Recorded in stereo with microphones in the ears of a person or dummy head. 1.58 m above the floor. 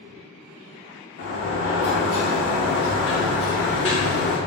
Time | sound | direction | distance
1.2 | a sliding door | 60° left (ahead or behind) | 1.0 m